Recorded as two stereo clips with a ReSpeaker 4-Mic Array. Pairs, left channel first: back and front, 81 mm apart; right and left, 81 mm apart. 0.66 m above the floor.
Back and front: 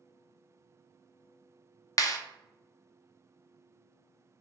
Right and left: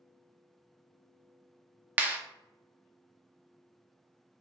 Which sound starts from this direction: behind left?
A clap, at 2.0 s.